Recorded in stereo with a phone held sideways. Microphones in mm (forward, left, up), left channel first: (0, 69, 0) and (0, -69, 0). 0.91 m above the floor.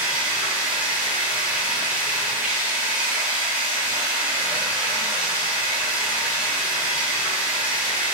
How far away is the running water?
About 0.7 m.